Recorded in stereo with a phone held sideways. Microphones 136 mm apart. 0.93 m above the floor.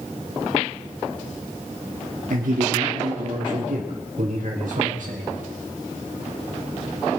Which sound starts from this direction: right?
A man speaking, at 2.3 s.